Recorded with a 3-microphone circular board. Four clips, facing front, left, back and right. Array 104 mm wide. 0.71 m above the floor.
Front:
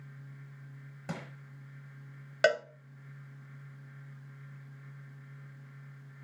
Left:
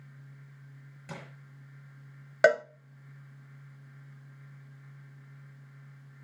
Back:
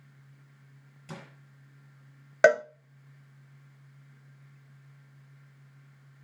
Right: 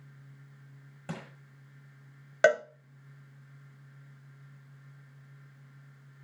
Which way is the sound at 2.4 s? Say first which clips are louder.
Left 1 dB, back 7 dB; 170° left.